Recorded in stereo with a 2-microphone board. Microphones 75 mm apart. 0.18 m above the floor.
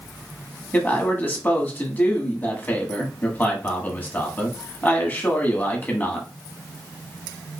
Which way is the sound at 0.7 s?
25° left (ahead or behind).